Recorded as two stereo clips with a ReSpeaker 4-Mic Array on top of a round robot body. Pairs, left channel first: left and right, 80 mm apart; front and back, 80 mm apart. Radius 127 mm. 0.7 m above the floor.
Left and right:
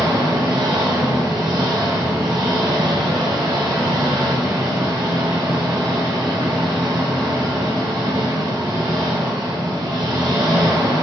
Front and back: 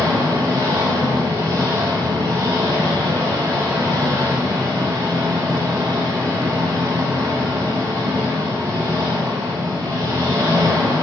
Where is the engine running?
130° right, 4 m.